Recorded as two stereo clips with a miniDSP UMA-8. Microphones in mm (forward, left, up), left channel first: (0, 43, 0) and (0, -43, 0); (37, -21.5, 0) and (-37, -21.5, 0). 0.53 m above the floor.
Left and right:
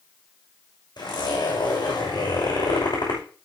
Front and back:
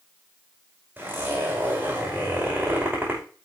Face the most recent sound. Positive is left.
turn(degrees=115)